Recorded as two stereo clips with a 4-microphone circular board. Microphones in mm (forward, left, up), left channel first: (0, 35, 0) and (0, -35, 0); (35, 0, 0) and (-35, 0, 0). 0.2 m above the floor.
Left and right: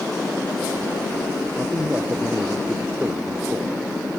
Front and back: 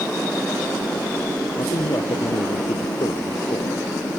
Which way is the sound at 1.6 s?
20° right.